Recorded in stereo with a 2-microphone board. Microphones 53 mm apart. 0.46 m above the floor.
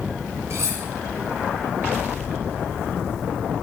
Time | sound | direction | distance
0.5 | cutlery clinking | 60° right (ahead or behind) | 2.5 m